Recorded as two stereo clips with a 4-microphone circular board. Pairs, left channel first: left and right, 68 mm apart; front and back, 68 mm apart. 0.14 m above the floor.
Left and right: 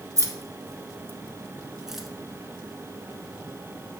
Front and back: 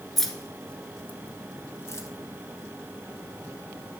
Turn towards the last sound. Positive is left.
turn(degrees=0)